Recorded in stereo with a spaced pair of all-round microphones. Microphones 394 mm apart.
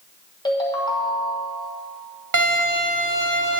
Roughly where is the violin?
Right.